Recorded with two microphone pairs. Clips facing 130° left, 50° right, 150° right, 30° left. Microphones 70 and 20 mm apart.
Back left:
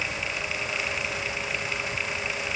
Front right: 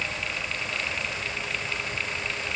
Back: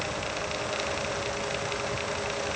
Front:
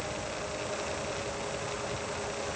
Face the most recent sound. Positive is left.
No sound to turn to.